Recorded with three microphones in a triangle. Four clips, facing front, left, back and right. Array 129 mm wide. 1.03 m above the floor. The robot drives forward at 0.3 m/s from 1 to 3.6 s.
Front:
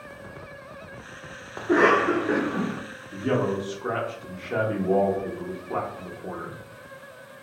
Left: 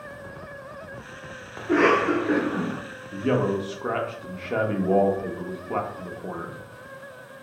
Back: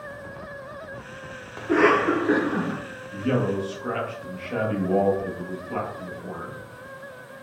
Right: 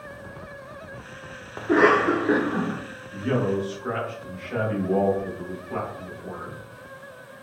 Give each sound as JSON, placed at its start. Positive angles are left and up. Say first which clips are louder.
{"t": 1.6, "sound": "a cough", "louder": "right 2 dB, even", "azimuth_deg": -50, "distance_m": 0.5}
{"t": 3.1, "sound": "a man speaking", "louder": "left 1 dB, back 1 dB", "azimuth_deg": 70, "distance_m": 1.0}